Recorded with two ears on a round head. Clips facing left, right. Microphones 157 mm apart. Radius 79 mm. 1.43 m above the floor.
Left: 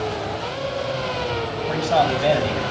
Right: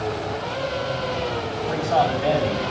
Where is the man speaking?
45° left (ahead or behind), 4 m.